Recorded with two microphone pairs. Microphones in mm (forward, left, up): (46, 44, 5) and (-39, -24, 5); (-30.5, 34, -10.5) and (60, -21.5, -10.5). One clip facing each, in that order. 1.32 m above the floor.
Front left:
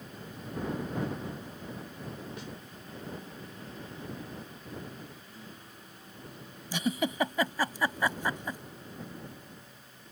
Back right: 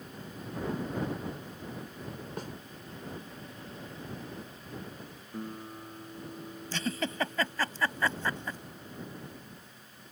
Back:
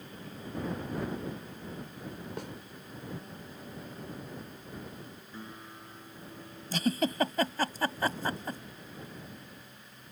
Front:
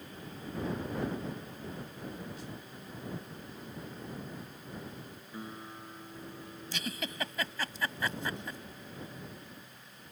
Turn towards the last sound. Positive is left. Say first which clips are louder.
# front left 4 dB, back 11 dB
turn(degrees=110)